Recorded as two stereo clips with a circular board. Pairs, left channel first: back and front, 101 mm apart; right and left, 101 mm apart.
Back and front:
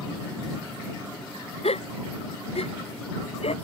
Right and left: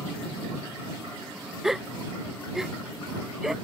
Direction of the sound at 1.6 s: 175° left.